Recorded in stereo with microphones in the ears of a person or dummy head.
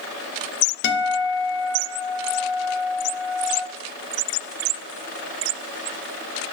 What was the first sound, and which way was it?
A guitar, 50° left (ahead or behind).